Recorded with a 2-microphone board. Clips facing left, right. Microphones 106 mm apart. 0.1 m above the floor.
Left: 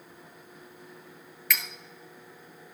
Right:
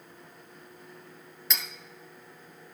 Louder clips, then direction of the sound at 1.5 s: Left 3 dB; 25° right (ahead or behind).